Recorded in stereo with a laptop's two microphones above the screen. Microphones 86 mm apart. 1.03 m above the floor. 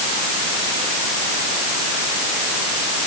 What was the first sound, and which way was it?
Only background noise.